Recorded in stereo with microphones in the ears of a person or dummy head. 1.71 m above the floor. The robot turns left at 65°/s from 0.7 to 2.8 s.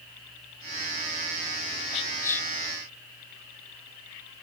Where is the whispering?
30° left (ahead or behind), 0.8 m; by 2.5 s centre (ahead or behind), 0.8 m.